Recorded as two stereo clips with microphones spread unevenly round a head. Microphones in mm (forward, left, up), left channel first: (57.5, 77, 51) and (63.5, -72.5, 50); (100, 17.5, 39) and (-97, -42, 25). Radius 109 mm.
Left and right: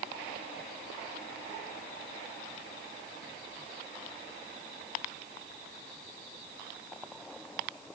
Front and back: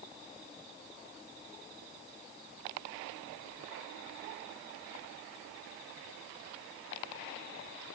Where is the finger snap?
No finger snap in this recording.